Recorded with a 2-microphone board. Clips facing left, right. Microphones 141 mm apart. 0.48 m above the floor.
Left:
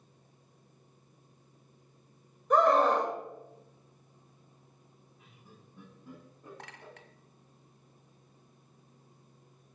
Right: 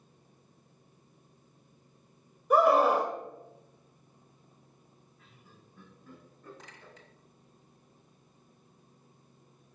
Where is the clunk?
I don't hear a clunk.